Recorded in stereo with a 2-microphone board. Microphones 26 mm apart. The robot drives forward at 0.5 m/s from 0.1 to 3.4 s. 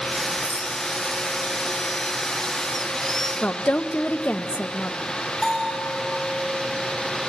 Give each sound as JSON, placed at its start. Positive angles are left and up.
{"t": 0.4, "sound": "a rattle", "side_deg": 45, "distance_m": 1.7}
{"t": 3.4, "sound": "a woman speaking", "side_deg": 85, "distance_m": 0.7}
{"t": 5.4, "sound": "a bell", "side_deg": 5, "distance_m": 8.5}